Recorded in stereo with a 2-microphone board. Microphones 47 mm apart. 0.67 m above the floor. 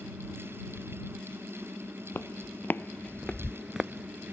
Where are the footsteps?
55° left (ahead or behind); by 4.3 s 45° right (ahead or behind).